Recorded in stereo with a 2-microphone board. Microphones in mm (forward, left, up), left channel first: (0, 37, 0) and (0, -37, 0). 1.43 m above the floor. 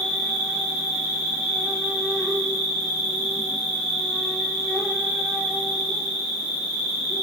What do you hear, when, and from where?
0.0 s an insect: centre (ahead or behind), 0.8 m